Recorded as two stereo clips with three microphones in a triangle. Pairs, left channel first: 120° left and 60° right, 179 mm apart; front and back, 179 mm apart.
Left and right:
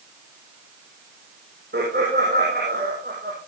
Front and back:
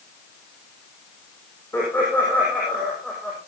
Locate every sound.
1.7 s laughter: 80° right, 8 m; by 3.4 s 85° right, 7.5 m